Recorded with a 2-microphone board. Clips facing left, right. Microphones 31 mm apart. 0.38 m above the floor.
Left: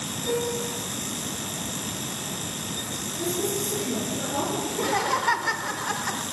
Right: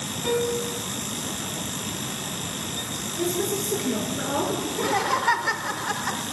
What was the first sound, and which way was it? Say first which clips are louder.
A piano: right 3 dB; 70° right (ahead or behind).